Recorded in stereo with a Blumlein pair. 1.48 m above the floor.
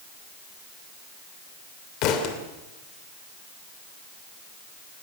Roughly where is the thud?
Ahead left.